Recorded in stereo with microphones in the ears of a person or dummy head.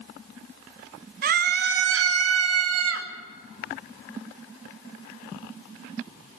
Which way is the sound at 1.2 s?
45° right (ahead or behind).